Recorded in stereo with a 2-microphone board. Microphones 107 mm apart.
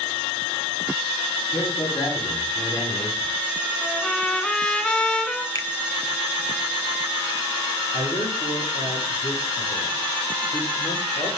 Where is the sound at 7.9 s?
90° left, 8 m.